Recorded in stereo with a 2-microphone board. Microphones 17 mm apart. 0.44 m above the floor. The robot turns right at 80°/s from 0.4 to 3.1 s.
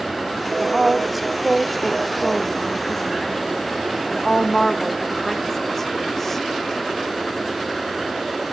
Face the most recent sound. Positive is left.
turn(degrees=15)  # may be behind; listen again after turning